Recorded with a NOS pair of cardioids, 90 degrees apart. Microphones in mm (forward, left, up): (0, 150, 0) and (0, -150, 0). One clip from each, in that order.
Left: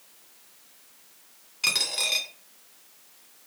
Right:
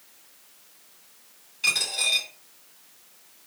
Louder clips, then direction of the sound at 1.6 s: Right 1 dB; 35° left.